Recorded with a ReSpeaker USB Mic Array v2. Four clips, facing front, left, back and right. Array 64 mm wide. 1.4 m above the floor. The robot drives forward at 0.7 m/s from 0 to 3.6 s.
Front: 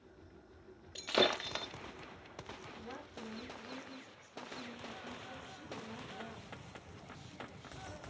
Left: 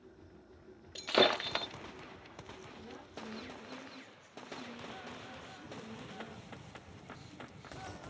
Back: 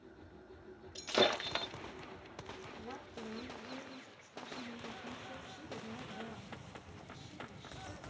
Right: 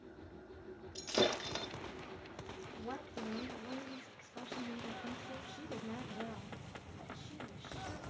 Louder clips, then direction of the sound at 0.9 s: Left 5 dB, even; 65° left.